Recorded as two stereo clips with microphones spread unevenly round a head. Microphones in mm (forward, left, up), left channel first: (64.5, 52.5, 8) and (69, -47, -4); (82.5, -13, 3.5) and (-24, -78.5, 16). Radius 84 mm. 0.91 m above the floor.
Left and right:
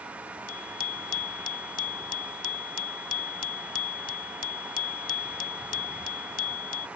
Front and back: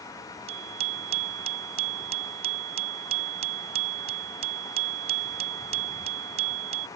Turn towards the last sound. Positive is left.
turn(degrees=155)